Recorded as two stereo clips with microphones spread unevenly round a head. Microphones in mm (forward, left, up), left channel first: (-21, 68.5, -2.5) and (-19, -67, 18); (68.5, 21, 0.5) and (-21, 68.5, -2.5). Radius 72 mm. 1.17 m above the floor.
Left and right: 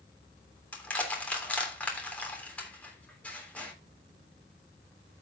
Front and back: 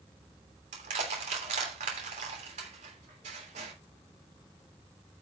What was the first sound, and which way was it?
Crushing, 170° left.